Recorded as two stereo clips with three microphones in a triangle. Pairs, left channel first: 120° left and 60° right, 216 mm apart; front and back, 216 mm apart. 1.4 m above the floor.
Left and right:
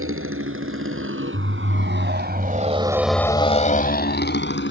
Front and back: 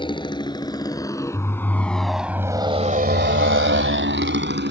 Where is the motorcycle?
65° right; by 4.7 s 145° left.